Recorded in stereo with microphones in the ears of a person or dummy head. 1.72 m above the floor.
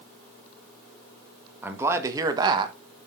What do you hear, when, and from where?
1.6 s a man speaking: 15° right (ahead or behind), 1.9 m; by 3.1 s 40° right (ahead or behind), 1.2 m